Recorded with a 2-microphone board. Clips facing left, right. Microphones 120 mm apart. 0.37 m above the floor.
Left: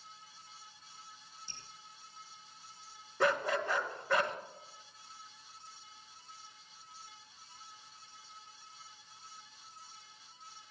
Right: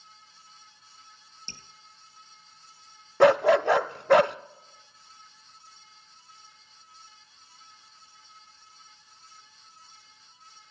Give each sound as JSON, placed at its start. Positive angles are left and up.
{"t": 1.5, "sound": "dripping", "side_deg": -90, "distance_m": 1.8}
{"t": 3.2, "sound": "a dog barking", "side_deg": -70, "distance_m": 0.5}